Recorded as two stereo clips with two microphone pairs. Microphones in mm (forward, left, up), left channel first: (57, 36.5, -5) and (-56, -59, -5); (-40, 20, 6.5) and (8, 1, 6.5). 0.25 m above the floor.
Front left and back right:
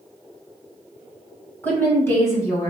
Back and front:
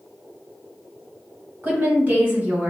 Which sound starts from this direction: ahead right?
A woman speaking, at 1.6 s.